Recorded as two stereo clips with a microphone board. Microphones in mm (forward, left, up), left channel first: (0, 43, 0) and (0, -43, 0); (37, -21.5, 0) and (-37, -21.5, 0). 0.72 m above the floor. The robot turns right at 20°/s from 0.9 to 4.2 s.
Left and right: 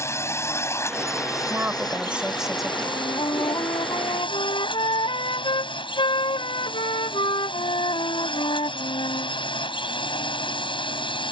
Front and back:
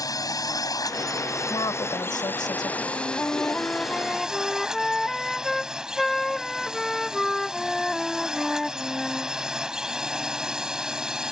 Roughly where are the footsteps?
No footsteps in this recording.